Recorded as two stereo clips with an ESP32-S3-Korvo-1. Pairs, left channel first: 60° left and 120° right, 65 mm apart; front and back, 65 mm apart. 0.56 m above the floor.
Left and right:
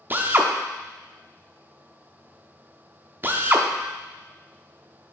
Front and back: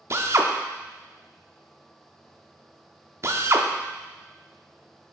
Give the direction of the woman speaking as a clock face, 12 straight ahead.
No woman speaking in this recording.